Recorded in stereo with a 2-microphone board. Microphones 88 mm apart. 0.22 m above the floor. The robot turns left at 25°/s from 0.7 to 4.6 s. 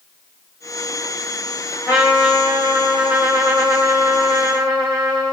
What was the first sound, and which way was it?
A trumpet, 20° right.